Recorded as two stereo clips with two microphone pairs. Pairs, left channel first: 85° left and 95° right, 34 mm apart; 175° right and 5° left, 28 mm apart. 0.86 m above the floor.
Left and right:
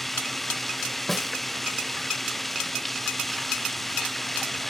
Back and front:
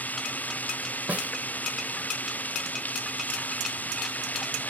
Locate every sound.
0.0 s running water: 170° left
1.1 s a snare drum: straight ahead